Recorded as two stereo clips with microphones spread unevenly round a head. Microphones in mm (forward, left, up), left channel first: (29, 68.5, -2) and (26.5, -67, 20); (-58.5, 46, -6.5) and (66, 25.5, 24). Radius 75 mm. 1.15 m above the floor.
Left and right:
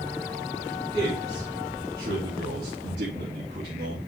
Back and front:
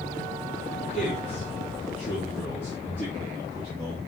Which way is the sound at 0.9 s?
150° right.